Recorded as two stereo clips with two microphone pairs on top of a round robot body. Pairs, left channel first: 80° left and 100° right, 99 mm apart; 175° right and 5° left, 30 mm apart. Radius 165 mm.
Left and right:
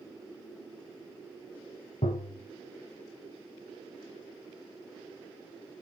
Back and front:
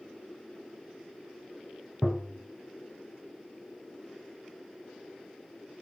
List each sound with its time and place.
2.0 s tapping: 85° left, 1.4 m